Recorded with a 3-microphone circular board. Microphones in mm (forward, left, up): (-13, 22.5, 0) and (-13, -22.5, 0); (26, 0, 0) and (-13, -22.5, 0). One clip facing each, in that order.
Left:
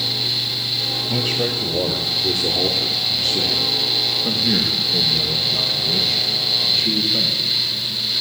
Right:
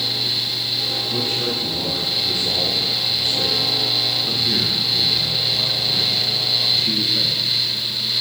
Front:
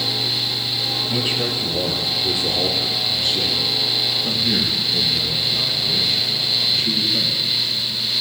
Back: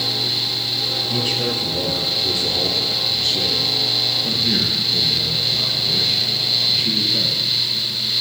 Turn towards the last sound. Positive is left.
turn(degrees=135)